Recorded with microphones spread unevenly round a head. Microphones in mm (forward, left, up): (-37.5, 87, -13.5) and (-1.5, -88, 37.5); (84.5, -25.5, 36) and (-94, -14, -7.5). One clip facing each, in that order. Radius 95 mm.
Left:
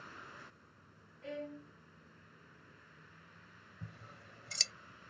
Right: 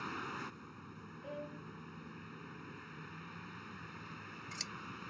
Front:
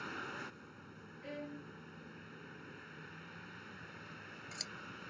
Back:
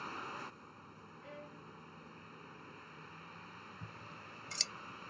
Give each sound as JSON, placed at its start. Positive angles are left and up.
{"t": 0.0, "sound": "a vehicle", "azimuth_deg": -80}
{"t": 1.2, "sound": "a violin", "azimuth_deg": 30}
{"t": 3.8, "sound": "scissors", "azimuth_deg": 115}